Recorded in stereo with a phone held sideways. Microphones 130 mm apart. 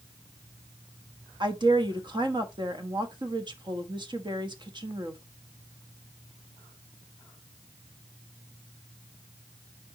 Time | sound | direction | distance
1.4 | a woman speaking | 35° right (ahead or behind) | 1.2 m